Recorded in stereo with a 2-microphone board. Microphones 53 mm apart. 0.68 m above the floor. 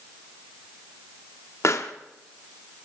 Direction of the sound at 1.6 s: 60° left (ahead or behind).